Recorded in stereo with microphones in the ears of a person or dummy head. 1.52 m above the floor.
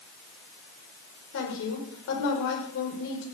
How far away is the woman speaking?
About 5 m.